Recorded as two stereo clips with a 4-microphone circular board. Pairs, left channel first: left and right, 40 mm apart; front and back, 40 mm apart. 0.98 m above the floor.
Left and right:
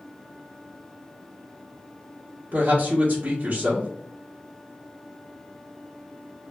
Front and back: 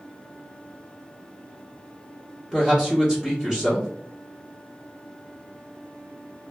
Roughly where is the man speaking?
Right.